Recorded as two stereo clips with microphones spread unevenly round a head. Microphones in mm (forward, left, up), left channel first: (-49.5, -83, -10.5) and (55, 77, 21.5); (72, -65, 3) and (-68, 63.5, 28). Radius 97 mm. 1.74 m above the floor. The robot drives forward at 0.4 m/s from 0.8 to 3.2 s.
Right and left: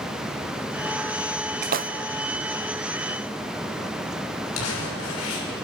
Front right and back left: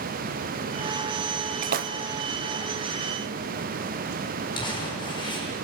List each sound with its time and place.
1.6 s a splash: 95° left, 0.9 m; by 1.9 s 100° left, 0.9 m
4.5 s crumpling: 110° right, 7 m